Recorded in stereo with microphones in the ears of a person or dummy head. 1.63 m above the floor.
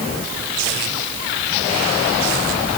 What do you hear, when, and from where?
Only background noise.